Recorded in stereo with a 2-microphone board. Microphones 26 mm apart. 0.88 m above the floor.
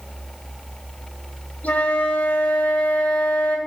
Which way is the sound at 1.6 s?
75° left (ahead or behind).